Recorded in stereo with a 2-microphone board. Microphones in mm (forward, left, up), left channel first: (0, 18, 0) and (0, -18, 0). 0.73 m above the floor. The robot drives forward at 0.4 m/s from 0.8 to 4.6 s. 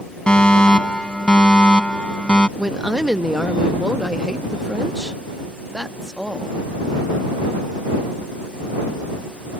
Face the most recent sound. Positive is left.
turn(degrees=-15)  # may be behind; listen again after turning